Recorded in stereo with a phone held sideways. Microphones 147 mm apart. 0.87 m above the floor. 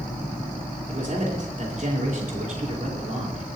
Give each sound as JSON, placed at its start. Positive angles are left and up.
{"t": 0.9, "sound": "a man speaking", "side_deg": -60, "distance_m": 3.5}